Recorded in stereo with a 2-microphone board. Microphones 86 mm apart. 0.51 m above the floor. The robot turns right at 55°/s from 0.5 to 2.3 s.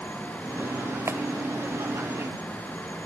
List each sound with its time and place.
1.1 s a clap: 35° right (ahead or behind), 1.3 m; by 1.2 s 25° right (ahead or behind), 1.3 m